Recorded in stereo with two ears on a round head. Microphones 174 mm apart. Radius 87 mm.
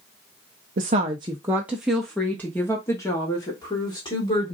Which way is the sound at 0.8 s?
45° right (ahead or behind).